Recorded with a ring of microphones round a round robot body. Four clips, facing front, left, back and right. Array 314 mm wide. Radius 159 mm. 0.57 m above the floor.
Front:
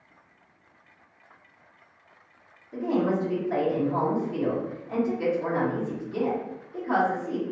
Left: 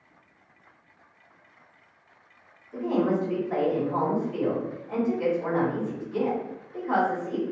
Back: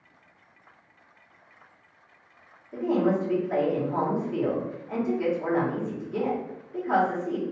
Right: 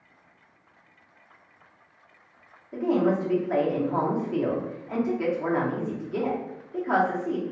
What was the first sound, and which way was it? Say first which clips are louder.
A woman speaking: right 2 dB, back 1 dB; 100° right.